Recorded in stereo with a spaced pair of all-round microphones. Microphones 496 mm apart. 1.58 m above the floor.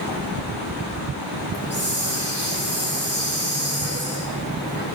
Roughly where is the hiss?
Left.